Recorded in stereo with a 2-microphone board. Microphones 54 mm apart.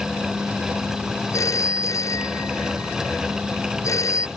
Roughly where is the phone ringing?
Left.